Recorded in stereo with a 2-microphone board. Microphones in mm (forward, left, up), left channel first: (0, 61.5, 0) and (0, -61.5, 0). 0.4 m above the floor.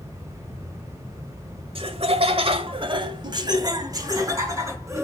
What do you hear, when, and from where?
1.8 s laughter: 50° right (ahead or behind), 1.4 m; by 5.0 s 25° right (ahead or behind), 3.5 m